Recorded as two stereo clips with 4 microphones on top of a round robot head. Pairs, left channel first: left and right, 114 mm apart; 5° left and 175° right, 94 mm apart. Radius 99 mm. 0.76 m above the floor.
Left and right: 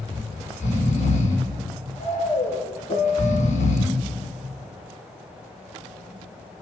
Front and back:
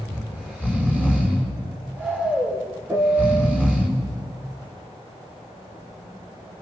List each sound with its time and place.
0.1 s snoring: 115° left, 5.5 m
2.9 s a piano: 130° left, 4 m